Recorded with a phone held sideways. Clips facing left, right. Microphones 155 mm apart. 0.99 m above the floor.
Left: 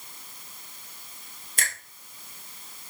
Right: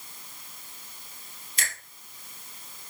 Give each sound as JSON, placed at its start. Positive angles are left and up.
{"t": 1.6, "sound": "a finger snap", "side_deg": 50, "distance_m": 1.8}